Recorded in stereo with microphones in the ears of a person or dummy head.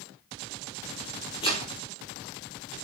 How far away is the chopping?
About 5 m.